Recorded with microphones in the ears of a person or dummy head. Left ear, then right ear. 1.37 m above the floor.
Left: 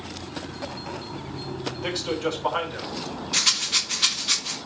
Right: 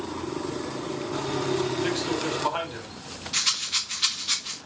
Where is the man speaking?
10° right (ahead or behind), 6 m.